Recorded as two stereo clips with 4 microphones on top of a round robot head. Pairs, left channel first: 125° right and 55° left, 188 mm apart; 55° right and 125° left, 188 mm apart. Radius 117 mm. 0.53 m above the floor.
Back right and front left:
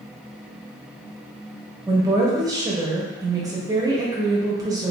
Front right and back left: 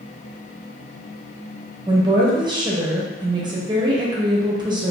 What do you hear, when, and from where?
1.9 s a woman speaking: 95° left, 0.9 m